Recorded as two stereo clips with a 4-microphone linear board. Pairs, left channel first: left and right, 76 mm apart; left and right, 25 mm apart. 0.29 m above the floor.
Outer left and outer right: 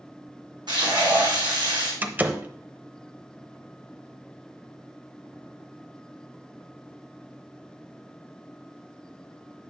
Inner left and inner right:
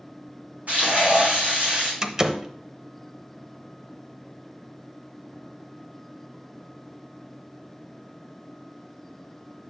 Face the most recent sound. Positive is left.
turn(degrees=-25)  # may be behind; listen again after turning